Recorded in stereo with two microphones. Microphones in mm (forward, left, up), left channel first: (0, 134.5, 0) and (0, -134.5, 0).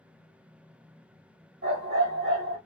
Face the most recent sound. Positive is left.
turn(degrees=-50)  # may be behind; listen again after turning